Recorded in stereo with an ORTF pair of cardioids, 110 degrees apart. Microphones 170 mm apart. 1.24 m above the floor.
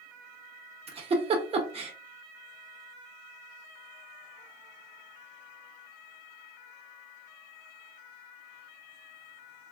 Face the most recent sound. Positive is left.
turn(degrees=-35)